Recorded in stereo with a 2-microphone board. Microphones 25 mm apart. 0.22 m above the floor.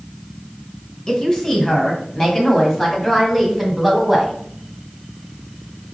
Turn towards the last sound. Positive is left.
turn(degrees=0)  # may be behind; listen again after turning